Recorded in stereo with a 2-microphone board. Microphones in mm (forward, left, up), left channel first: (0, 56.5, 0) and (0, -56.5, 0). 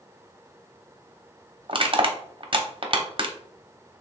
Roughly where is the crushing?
Right.